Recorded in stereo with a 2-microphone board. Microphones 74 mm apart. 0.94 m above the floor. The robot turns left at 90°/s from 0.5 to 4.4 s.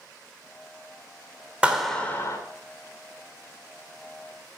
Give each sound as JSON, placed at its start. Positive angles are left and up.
{"t": 1.6, "sound": "a clap", "azimuth_deg": -165, "distance_m": 2.0}